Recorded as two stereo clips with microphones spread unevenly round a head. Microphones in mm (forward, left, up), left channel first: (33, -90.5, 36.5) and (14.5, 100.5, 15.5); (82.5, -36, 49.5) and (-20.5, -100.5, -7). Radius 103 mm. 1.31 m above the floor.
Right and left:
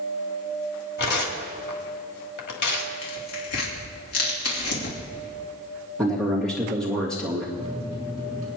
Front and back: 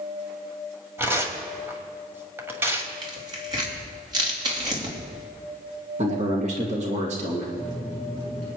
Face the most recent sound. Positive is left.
turn(degrees=155)